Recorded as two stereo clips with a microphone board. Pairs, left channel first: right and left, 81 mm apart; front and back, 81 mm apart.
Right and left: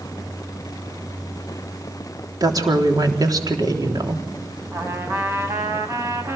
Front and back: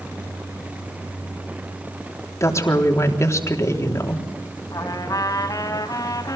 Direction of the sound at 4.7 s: 35° left.